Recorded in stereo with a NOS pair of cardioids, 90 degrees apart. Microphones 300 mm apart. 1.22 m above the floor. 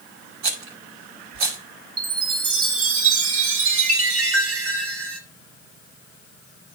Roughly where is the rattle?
Right.